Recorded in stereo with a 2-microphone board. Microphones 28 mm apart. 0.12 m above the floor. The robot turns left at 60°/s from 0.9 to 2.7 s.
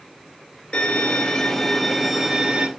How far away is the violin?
About 0.5 m.